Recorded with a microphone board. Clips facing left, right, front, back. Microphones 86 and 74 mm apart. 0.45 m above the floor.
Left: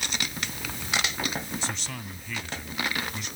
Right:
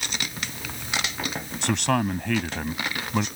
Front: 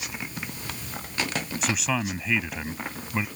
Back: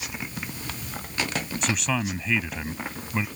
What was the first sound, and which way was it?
A man speaking, 90° right.